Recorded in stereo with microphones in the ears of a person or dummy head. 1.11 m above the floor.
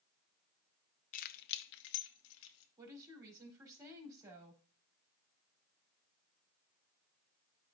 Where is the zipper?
I don't hear a zipper.